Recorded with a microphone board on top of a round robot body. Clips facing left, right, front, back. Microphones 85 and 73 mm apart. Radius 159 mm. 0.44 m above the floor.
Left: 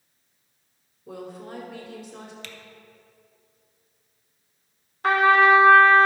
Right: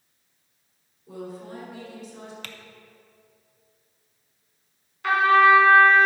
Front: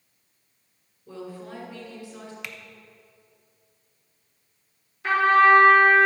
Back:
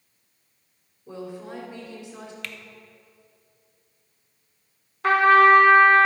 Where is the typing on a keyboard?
70° right, 0.9 m.